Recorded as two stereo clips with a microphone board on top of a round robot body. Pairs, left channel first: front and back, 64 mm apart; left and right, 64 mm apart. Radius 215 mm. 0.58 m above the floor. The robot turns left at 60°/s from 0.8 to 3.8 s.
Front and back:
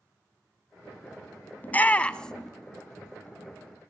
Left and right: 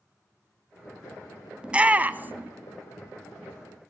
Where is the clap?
I don't hear a clap.